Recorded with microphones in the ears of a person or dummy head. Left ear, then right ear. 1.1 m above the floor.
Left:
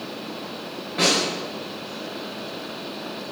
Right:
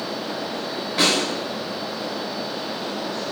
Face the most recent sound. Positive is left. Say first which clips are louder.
# right 1 dB
turn(degrees=-25)  # may be behind; listen again after turning